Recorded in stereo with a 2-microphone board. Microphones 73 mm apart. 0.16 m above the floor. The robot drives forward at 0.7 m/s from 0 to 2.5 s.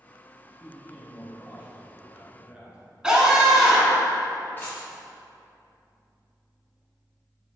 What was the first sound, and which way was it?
A man speaking, 25° right (ahead or behind).